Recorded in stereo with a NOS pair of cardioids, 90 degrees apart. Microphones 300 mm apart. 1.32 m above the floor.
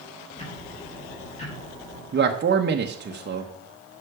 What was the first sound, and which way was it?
Ticking, 20° left.